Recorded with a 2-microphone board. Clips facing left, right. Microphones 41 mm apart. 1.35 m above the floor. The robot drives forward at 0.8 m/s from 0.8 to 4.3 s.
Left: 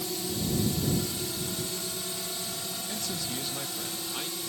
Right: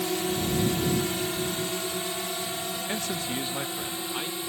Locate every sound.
0.0 s a drone: 50° right (ahead or behind); by 4.5 s 30° right (ahead or behind)
2.9 s a man speaking: 50° right (ahead or behind); by 4.4 s 20° right (ahead or behind)